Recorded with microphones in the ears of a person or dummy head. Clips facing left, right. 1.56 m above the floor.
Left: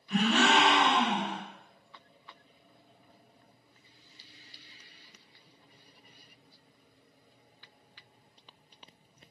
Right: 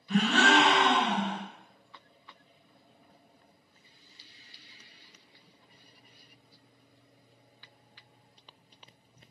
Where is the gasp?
30° right (ahead or behind), 1.4 m.